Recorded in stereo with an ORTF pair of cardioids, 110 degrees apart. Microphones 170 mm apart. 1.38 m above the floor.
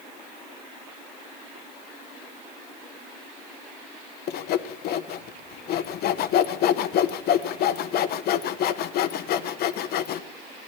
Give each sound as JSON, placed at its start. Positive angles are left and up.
{"t": 4.3, "sound": "sawing", "azimuth_deg": 65, "distance_m": 0.8}